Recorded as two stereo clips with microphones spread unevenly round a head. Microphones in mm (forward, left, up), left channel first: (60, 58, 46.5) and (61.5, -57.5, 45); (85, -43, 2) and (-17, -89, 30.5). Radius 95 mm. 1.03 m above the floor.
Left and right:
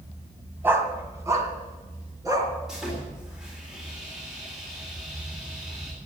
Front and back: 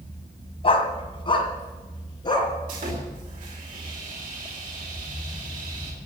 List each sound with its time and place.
0.6 s a dog barking: 15° right, 2 m; by 2.5 s 30° right, 4.5 m
2.7 s sawing: 175° right, 4 m